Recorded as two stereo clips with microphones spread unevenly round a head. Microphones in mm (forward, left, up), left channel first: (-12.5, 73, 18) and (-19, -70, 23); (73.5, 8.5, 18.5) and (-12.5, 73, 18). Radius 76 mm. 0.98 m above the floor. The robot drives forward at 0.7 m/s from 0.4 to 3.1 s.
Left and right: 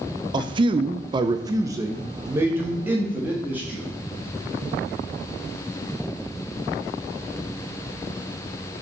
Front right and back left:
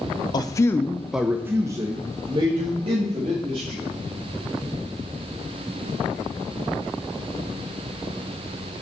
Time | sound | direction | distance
0.3 | a man speaking | 55° right | 0.6 m